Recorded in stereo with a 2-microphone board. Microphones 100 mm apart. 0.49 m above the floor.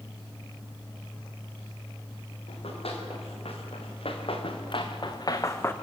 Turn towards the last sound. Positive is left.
turn(degrees=20)  # may be behind; listen again after turning